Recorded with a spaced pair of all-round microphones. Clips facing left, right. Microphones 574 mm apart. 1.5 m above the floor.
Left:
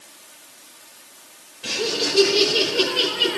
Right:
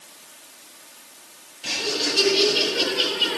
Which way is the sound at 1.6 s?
75° left (ahead or behind).